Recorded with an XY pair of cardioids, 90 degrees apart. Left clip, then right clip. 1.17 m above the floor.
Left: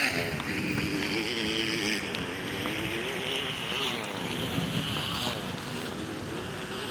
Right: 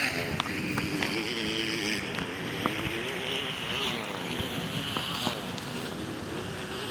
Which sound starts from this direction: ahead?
A motorcycle, at 0.0 s.